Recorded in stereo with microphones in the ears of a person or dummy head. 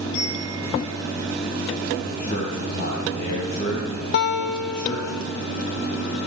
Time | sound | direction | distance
0.1 | a bell | 50° left (ahead or behind) | 8 m
2.0 | a man speaking | 60° left (ahead or behind) | 4 m
4.1 | a guitar | 60° left (ahead or behind) | 1.2 m